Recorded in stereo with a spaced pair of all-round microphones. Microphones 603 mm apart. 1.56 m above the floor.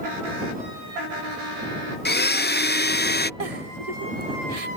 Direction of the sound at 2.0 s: 20° left (ahead or behind).